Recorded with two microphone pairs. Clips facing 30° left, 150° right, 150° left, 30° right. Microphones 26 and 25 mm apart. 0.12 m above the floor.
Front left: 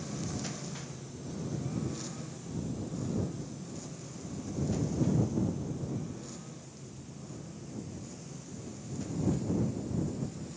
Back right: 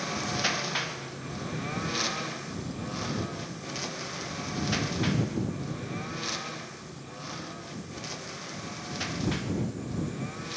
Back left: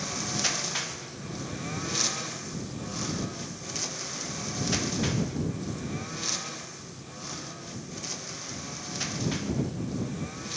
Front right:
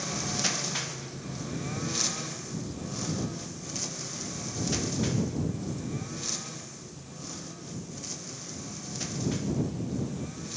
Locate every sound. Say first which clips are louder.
0.0 s a lawn mower: back right 9 dB, back left 1 dB; 125° right; by 10.6 s 150° right